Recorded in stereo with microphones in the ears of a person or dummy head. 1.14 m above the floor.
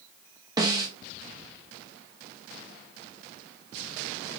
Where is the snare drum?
20° right (ahead or behind), 0.8 m.